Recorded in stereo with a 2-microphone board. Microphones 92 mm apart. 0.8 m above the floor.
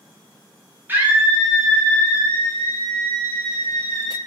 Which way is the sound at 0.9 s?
25° right (ahead or behind).